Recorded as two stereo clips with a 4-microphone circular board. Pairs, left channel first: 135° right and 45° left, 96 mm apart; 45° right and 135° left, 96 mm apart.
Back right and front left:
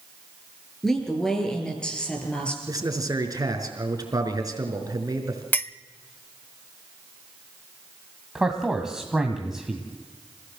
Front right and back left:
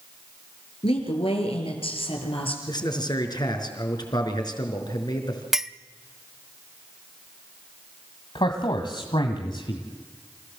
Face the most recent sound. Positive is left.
turn(degrees=-40)